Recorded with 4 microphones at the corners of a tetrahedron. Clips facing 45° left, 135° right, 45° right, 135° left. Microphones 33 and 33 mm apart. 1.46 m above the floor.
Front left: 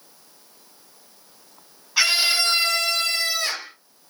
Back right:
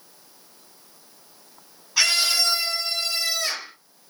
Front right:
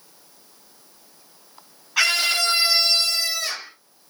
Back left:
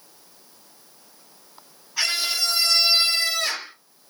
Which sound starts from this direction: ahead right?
A scream, at 2.0 s.